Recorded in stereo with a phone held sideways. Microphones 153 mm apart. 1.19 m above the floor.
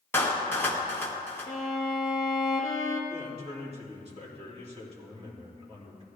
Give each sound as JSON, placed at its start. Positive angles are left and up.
{"t": 0.1, "sound": "a clap", "side_deg": 15, "distance_m": 1.4}
{"t": 1.5, "sound": "a violin", "side_deg": 20, "distance_m": 1.7}
{"t": 3.1, "sound": "a man speaking", "side_deg": -40, "distance_m": 2.5}